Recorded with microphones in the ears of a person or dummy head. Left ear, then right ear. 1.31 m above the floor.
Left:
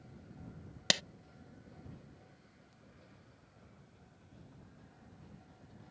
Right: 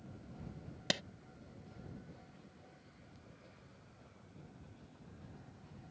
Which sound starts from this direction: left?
A clap, at 0.9 s.